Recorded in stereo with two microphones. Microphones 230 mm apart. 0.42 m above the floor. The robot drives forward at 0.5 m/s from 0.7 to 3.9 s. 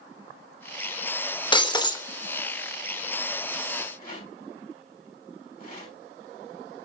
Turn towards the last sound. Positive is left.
turn(degrees=35)  # may be behind; listen again after turning